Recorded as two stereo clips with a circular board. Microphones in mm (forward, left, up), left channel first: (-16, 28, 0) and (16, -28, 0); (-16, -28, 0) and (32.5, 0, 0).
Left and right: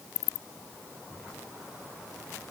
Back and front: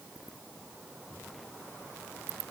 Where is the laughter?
I don't hear laughter.